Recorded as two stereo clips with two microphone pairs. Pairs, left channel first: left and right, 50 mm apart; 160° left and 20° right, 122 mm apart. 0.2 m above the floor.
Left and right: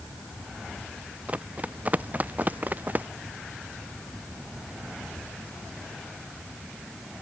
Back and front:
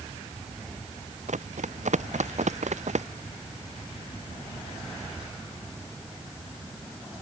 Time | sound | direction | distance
1.3 | running footsteps | 30° right | ?